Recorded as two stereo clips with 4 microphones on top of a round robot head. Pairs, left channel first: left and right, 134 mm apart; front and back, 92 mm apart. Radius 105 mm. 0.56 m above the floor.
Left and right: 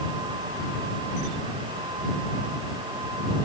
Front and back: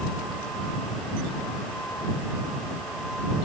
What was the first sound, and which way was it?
Only background noise.